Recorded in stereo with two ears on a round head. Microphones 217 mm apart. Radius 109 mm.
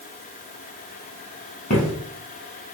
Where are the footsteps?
35° left (ahead or behind), 1.3 m.